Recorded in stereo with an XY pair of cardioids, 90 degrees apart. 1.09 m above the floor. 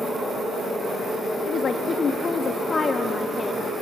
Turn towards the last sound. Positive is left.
turn(degrees=30)